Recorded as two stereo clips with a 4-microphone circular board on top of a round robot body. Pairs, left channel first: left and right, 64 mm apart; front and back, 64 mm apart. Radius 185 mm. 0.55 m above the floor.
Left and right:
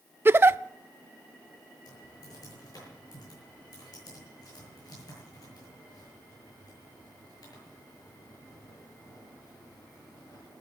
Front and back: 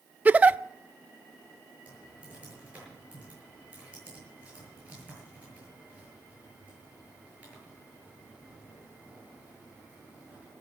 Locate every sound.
0.2 s a giggle: 125° right, 0.6 m
1.9 s typing on a keyboard: 110° left, 7.5 m